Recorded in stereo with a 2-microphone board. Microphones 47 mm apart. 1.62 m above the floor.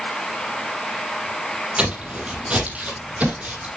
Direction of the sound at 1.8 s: 25° right (ahead or behind).